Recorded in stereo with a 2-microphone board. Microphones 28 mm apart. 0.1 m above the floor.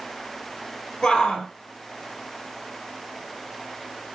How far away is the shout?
About 2 m.